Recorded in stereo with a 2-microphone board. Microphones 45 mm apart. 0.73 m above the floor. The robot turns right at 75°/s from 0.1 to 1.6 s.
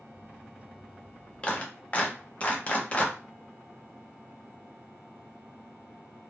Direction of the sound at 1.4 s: 20° left (ahead or behind).